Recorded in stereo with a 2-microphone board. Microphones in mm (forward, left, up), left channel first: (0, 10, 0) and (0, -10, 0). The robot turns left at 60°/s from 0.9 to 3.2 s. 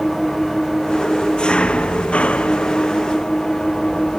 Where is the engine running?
165° left; by 4.2 s 25° left.